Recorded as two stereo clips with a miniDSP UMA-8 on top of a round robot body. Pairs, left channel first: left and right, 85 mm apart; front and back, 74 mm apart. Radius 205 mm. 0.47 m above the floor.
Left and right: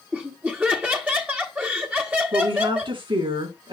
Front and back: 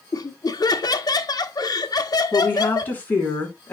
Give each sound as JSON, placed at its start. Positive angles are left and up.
{"t": 0.1, "sound": "laughter", "azimuth_deg": -20, "distance_m": 1.7}
{"t": 2.3, "sound": "a woman speaking", "azimuth_deg": -65, "distance_m": 6.5}